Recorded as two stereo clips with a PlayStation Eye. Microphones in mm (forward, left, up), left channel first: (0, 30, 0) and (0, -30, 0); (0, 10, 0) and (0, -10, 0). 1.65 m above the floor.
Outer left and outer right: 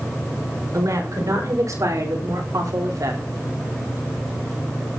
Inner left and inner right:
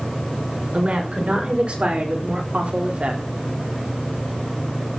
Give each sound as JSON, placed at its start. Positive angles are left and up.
{"t": 0.7, "sound": "a woman speaking", "side_deg": -70, "distance_m": 6.5}